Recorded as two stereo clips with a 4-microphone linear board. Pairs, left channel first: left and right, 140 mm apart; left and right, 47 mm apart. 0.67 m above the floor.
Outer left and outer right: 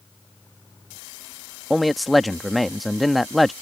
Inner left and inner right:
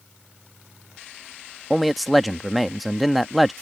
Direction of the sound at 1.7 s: Centre (ahead or behind).